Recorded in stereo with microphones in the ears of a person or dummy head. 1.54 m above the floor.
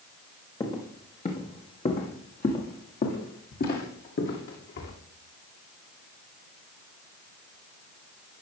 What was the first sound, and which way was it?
Footsteps, 25° left (ahead or behind).